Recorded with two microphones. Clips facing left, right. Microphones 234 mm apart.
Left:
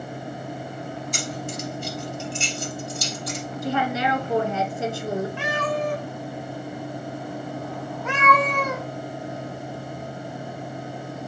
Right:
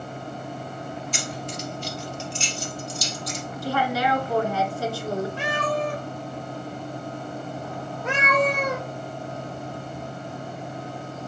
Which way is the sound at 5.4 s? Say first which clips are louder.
Even; 35° right (ahead or behind).